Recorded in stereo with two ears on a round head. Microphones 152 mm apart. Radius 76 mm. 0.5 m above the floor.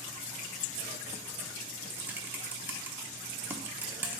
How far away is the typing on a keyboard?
About 0.7 m.